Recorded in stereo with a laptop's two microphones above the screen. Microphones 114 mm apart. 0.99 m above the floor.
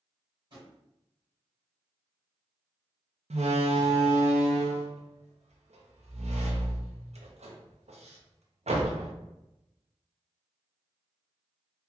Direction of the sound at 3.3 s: 80° right.